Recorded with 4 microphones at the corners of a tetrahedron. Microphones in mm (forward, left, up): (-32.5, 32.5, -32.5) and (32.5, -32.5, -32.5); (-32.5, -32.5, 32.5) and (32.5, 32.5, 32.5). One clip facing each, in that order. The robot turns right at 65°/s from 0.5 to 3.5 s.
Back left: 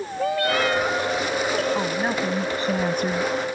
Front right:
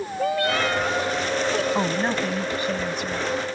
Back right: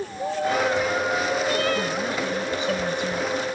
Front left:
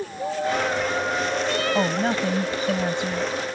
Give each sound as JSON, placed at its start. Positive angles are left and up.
{"t": 1.8, "sound": "a woman speaking", "azimuth_deg": 30}